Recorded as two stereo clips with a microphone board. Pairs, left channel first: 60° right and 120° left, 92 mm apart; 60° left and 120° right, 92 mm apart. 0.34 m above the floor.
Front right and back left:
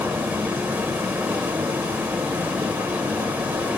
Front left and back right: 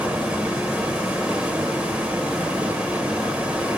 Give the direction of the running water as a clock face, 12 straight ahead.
6 o'clock.